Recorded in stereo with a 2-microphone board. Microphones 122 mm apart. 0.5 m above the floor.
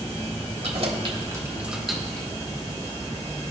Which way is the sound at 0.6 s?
60° right (ahead or behind).